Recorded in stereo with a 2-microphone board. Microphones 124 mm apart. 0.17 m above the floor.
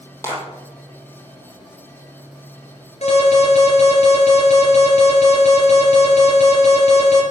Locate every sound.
0.2 s a clap: 20° left (ahead or behind), 5 m
3.0 s an alarm: 60° left (ahead or behind), 4.5 m